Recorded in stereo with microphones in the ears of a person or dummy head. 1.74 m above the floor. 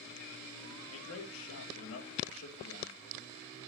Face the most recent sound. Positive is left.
turn(degrees=85)